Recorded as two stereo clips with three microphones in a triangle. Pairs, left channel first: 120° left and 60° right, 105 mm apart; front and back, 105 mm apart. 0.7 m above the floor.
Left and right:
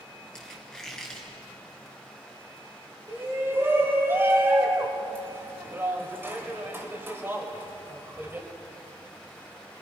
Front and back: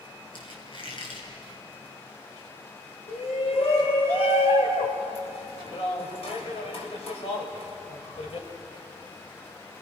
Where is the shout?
5° left, 4 m.